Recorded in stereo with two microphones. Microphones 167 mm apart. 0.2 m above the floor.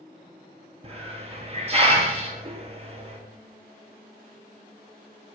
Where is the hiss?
40° right (ahead or behind), 0.7 m.